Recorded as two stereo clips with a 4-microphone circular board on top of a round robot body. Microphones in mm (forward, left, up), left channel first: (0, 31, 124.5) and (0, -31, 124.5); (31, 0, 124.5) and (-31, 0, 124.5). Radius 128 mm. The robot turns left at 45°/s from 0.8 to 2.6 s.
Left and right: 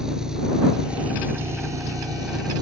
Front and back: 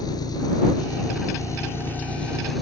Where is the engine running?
10° right; by 2.6 s 90° right.